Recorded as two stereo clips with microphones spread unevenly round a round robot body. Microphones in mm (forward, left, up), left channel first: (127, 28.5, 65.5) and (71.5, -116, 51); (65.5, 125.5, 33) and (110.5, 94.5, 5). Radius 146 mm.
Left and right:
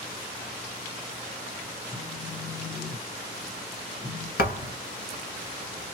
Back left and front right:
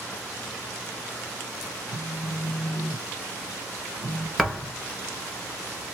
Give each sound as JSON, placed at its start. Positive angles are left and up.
{"t": 1.9, "sound": "a phone buzzing", "azimuth_deg": 110, "distance_m": 1.7}
{"t": 4.4, "sound": "a thud", "azimuth_deg": 60, "distance_m": 1.6}